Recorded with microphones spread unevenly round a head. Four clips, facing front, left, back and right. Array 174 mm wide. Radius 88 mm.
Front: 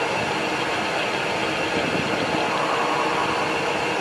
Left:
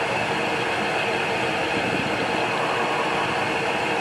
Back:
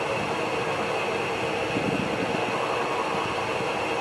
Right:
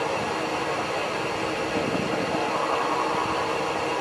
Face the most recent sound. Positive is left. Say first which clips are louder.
# left 2 dB, front 3 dB
turn(degrees=60)